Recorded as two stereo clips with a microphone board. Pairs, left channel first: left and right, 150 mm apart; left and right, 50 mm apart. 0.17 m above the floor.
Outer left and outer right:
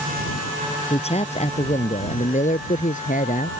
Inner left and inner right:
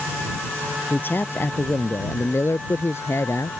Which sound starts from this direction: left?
A man speaking, at 0.9 s.